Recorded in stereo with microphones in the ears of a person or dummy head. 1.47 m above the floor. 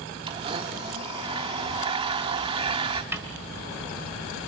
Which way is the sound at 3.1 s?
10° right (ahead or behind).